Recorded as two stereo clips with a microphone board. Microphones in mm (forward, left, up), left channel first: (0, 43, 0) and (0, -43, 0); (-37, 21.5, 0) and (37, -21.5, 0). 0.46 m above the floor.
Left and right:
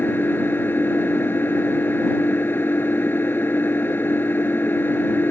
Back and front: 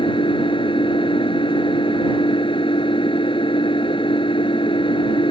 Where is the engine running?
155° left.